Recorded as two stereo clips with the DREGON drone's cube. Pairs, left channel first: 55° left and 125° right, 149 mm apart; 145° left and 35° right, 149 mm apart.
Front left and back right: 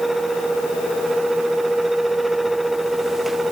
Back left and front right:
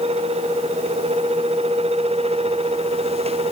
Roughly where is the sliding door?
I don't hear a sliding door.